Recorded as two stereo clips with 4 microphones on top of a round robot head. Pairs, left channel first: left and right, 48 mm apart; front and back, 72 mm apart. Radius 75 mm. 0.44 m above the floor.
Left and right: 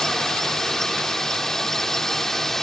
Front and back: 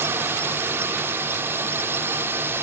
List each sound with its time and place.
0.0 s a drone: 165° left